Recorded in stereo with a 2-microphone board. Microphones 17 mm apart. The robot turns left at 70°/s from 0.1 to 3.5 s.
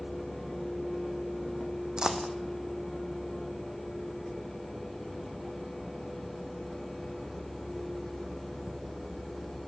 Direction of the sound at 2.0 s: 60° right (ahead or behind).